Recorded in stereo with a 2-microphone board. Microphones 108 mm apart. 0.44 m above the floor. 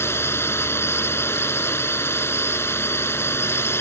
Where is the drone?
20° left (ahead or behind).